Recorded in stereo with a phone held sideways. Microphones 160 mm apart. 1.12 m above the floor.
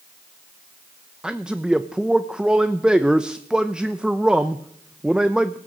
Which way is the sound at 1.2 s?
5° right (ahead or behind).